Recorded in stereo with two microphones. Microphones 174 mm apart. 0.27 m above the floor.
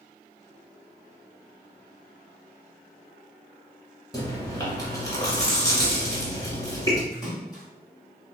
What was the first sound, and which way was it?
Chewing, 20° left (ahead or behind).